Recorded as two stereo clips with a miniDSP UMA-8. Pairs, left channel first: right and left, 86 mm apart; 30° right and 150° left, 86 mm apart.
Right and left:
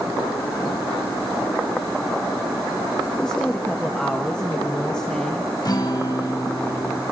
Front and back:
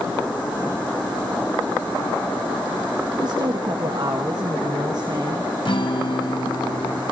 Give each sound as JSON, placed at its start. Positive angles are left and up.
{"t": 3.2, "sound": "a woman speaking", "azimuth_deg": -170, "distance_m": 1.8}
{"t": 5.7, "sound": "a guitar", "azimuth_deg": -50, "distance_m": 3.0}